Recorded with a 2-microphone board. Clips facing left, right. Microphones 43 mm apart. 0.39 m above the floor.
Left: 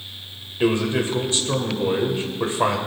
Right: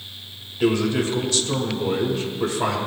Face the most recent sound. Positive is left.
turn(degrees=30)  # may be behind; listen again after turning